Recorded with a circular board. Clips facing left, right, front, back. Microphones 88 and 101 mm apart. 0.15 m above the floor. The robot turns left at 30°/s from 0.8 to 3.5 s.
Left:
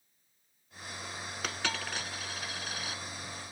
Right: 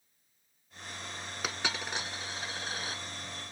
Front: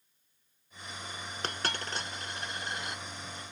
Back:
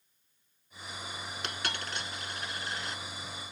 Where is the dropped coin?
15° right, 0.7 m; by 3.0 s 65° right, 0.7 m.